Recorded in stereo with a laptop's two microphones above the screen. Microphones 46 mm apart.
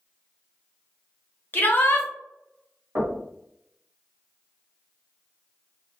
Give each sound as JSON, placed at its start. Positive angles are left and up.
{"t": 1.5, "sound": "a shout", "side_deg": 40, "distance_m": 0.6}
{"t": 3.0, "sound": "knocking", "side_deg": -55, "distance_m": 1.4}